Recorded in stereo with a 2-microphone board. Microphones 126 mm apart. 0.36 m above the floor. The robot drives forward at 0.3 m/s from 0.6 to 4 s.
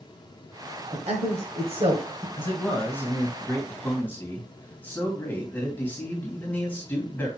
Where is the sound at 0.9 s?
55° right (ahead or behind), 1.8 m; by 2.3 s 50° right (ahead or behind), 1.9 m.